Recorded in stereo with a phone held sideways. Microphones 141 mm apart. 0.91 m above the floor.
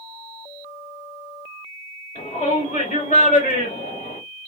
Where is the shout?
65° left (ahead or behind), 3 m; by 4.2 s 80° left, 4.5 m.